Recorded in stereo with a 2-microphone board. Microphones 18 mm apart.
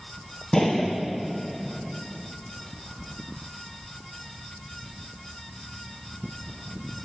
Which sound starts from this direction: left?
A gunshot, at 0.5 s.